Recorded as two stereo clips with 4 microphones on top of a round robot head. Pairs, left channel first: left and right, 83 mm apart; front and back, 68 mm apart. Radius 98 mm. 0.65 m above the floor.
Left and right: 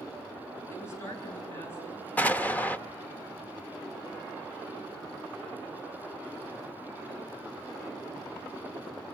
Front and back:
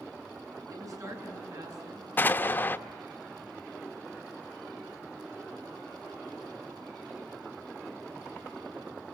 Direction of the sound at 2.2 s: 35° left.